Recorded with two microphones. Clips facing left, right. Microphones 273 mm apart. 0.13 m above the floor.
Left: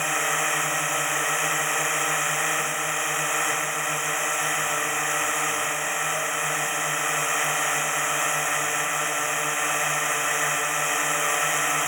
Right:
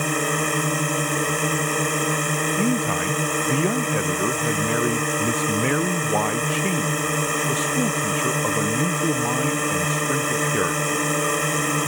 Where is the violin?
I don't hear a violin.